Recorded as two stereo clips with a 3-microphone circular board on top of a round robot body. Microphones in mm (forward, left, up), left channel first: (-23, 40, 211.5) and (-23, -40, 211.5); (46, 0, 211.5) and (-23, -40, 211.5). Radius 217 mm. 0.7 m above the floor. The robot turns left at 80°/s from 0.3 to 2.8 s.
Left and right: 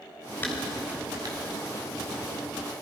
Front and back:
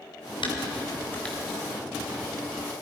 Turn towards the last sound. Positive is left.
turn(degrees=-170)